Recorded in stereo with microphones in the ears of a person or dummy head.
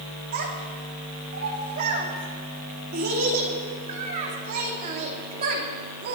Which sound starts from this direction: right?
A child speaking, at 0.3 s.